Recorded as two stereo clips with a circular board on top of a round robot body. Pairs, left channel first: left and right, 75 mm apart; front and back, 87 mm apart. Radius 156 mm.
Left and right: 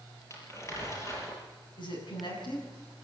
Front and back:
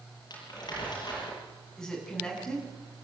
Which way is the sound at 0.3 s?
40° left.